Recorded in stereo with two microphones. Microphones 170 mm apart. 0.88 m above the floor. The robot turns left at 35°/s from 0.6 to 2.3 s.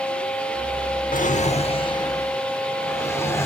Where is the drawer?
55° left, 0.8 m; by 3.5 s 15° left, 0.8 m.